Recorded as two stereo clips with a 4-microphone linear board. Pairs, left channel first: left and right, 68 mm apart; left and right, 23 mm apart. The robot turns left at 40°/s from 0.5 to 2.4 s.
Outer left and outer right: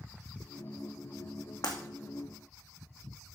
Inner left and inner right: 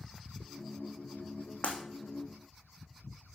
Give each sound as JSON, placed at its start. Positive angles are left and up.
{"t": 1.6, "sound": "breaking glass", "side_deg": 90, "distance_m": 3.0}